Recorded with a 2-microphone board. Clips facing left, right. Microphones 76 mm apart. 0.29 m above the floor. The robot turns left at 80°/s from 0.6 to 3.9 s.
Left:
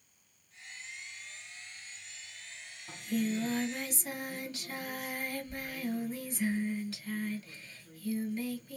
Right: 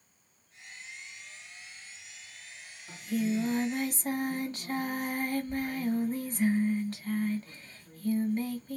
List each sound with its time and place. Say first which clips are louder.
2.9 s singing: right 2 dB; 15° left, 1.3 m; by 8.8 s 65° right, 1.3 m